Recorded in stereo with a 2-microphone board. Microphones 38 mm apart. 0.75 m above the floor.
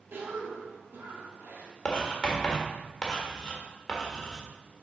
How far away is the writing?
About 1.3 m.